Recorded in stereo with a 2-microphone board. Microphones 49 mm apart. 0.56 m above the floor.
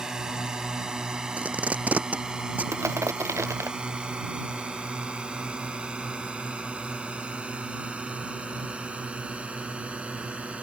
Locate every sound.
0.0 s a drone: 15° right (ahead or behind); by 10.6 s 25° right (ahead or behind)
1.4 s tape being pulled: 30° right (ahead or behind)
2.7 s crushing: 70° right (ahead or behind)